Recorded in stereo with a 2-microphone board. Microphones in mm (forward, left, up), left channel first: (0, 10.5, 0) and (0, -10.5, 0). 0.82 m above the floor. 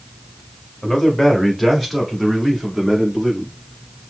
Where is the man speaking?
10° left (ahead or behind), 1.4 m; by 3.5 s 20° right (ahead or behind), 2.5 m.